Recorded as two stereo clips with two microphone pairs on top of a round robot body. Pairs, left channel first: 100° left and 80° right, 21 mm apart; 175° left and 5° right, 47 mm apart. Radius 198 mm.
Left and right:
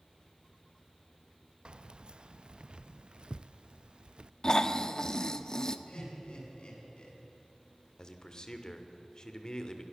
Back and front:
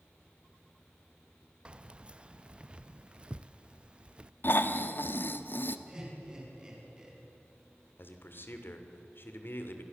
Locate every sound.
1.6 s keys jangling: 65° right, 0.6 m
4.4 s snoring: 150° left, 1.3 m
5.9 s laughter: 65° left, 7.5 m
8.0 s a man speaking: 145° left, 2.5 m